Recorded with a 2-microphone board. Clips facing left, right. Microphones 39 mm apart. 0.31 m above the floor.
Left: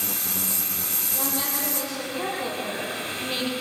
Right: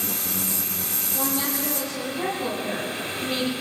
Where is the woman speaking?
Centre (ahead or behind), 9 m; by 3.5 s 10° left (ahead or behind), 8 m.